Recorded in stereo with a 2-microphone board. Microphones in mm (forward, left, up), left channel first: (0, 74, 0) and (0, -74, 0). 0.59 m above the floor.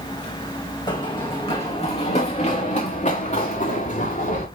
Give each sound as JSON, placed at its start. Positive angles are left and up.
{"t": 0.9, "sound": "running footsteps", "side_deg": 30, "distance_m": 2.5}